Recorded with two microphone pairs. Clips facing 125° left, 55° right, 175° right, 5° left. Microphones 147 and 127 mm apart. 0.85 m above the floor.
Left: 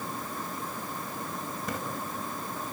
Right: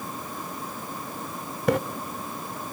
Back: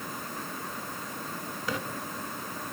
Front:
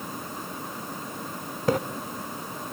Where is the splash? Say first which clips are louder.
Right 15 dB, front 10 dB; 35° right, 0.9 m.